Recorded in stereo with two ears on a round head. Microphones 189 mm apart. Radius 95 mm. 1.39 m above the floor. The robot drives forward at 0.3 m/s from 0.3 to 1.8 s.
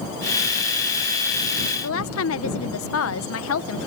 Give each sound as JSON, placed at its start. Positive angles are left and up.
{"t": 1.8, "sound": "a woman speaking", "side_deg": 70}